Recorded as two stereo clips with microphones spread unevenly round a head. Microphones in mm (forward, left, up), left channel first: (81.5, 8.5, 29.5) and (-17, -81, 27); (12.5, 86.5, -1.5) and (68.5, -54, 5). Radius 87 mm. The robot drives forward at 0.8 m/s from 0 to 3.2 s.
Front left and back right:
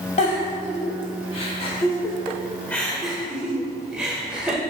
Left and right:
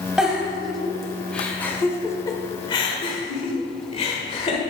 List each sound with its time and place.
0.2 s a giggle: 15° left, 2 m; by 4.6 s 140° left, 1.3 m